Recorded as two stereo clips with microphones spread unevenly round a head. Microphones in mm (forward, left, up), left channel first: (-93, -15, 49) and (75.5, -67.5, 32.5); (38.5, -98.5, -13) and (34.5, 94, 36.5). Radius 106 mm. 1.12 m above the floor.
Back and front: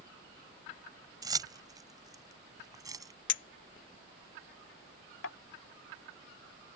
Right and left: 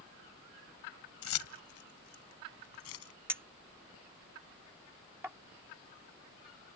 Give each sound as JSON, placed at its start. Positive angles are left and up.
{"t": 1.2, "sound": "keys jangling", "azimuth_deg": -90}
{"t": 3.3, "sound": "a clink", "azimuth_deg": 170}